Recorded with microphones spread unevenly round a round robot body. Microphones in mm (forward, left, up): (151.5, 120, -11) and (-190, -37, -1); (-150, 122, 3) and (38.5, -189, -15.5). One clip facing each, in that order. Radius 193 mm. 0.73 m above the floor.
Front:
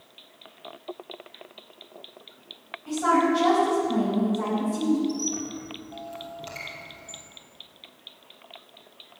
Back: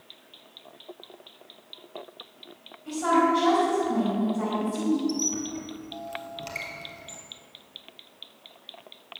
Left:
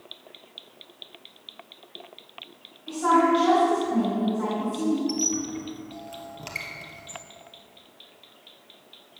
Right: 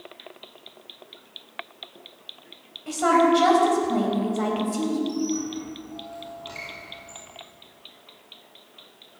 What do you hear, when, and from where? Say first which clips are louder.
2.9 s a woman speaking: front 1 dB, right 2 dB; 65° right, 4.5 m
5.1 s a squeak: even, right 2 dB; 140° left, 1.9 m